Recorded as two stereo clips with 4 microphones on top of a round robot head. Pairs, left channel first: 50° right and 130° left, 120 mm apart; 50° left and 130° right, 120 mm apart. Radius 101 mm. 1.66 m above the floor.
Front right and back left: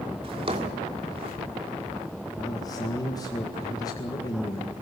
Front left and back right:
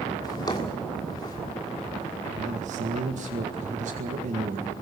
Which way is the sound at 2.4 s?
110° right.